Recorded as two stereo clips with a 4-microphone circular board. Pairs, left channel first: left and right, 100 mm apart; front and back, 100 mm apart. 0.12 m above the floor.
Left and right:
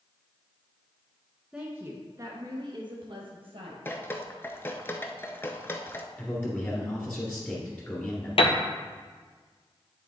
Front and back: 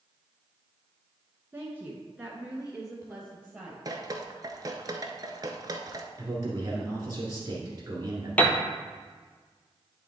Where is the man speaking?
150° left, 2 m.